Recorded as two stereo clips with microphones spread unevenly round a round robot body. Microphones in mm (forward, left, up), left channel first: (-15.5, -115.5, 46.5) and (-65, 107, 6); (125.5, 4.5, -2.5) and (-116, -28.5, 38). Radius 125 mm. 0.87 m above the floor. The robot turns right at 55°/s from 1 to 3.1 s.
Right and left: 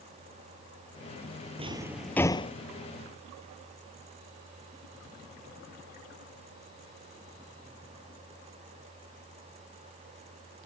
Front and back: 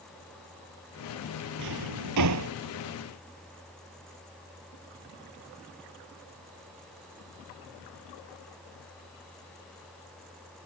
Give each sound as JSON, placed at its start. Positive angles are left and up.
{"t": 1.6, "sound": "a drawer", "azimuth_deg": 170}